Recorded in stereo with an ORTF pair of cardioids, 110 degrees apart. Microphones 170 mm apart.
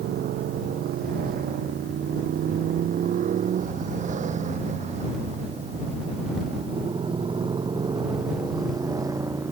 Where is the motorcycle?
65° right; by 9.5 s 15° right.